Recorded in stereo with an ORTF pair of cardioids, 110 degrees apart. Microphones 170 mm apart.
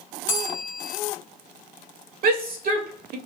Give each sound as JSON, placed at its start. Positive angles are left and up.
{"t": 0.3, "sound": "a bell", "azimuth_deg": 50, "distance_m": 0.8}
{"t": 2.2, "sound": "a shout", "azimuth_deg": -60, "distance_m": 1.2}